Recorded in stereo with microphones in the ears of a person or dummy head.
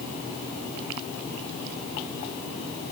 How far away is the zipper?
I don't hear a zipper.